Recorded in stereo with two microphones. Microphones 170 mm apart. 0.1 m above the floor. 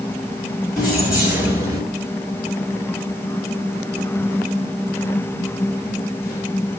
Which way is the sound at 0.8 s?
Centre (ahead or behind).